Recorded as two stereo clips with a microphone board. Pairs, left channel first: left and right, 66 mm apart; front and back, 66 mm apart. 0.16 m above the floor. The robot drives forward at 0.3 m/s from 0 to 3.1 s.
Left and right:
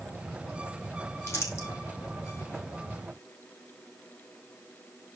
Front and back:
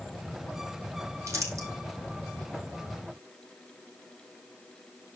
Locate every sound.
1.3 s crumpling: 135° left, 4 m; by 1.7 s 140° left, 4 m